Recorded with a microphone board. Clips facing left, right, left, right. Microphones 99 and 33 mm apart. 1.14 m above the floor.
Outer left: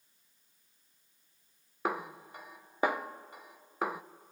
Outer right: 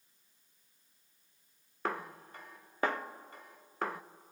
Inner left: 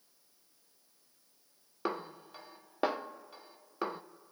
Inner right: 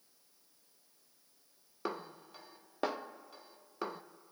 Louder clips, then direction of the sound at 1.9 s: Outer left 3 dB, inner left 4 dB; 10° left (ahead or behind).